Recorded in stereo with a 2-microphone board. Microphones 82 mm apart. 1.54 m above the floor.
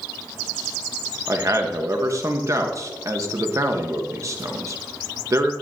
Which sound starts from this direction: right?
A man speaking, at 1.3 s.